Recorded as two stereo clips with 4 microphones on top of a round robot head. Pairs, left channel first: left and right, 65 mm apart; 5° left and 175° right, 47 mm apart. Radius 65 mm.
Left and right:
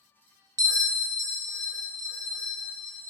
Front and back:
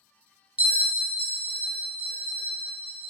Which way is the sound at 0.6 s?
110° right.